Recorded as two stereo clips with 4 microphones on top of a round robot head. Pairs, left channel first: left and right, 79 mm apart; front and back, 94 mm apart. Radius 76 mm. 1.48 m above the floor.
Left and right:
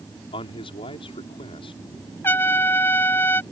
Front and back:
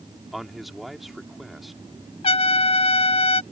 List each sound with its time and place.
0.3 s a man speaking: 90° left
2.2 s a trumpet: 20° left